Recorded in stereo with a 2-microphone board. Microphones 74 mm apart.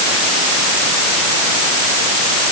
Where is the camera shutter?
No camera shutter in this recording.